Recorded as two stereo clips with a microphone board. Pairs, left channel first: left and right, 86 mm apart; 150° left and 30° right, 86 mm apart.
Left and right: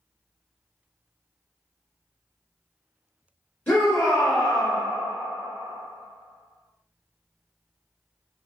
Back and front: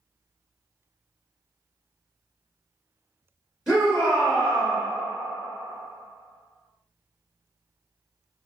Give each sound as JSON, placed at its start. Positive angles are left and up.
{"t": 3.7, "sound": "a shout", "azimuth_deg": 40, "distance_m": 1.3}